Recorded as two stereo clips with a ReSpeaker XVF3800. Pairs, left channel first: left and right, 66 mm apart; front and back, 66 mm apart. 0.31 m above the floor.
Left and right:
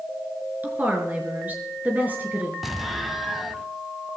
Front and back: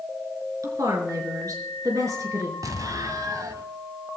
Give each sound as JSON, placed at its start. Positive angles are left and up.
{"t": 0.6, "sound": "a woman speaking", "azimuth_deg": -155, "distance_m": 4.5}
{"t": 2.6, "sound": "an explosion", "azimuth_deg": -175, "distance_m": 1.3}